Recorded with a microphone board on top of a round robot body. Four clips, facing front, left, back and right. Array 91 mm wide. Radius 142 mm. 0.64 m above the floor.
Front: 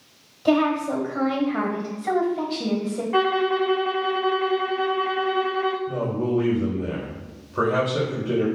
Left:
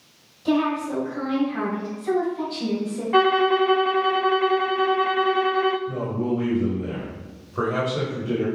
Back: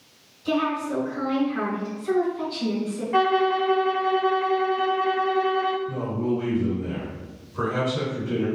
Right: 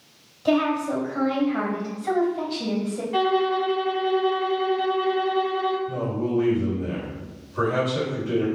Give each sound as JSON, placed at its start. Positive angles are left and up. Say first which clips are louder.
{"t": 0.5, "sound": "a woman speaking", "louder": "right 1 dB, front 4 dB", "azimuth_deg": -15, "distance_m": 3.5}
{"t": 3.1, "sound": "a violin", "louder": "left 4 dB, back 1 dB", "azimuth_deg": 80, "distance_m": 0.8}
{"t": 5.9, "sound": "a man speaking", "louder": "even, front 2 dB", "azimuth_deg": 20, "distance_m": 3.0}